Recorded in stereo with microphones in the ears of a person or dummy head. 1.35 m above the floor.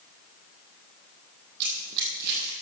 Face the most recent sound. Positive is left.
turn(degrees=-55)  # may be behind; listen again after turning